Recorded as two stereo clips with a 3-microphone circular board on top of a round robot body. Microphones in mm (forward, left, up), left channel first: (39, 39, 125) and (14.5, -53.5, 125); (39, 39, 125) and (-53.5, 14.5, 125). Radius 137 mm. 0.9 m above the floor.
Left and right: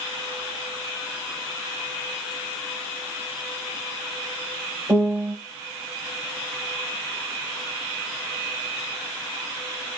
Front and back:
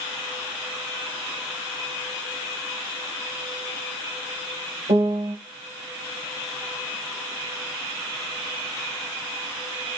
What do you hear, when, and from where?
4.9 s a piano: 170° right, 6.5 m